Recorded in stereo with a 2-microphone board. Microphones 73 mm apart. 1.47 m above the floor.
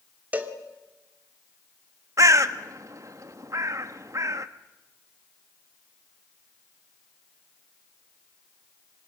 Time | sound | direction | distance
0.3 | a cowbell | 25° right (ahead or behind) | 2 m
2.2 | a bird | 50° right (ahead or behind) | 1.1 m